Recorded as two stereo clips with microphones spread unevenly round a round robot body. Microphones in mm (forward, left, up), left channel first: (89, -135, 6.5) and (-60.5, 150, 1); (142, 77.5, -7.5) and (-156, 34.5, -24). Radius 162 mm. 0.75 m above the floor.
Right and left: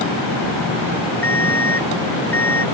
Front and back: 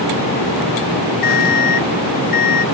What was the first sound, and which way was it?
An alarm clock, 20° left.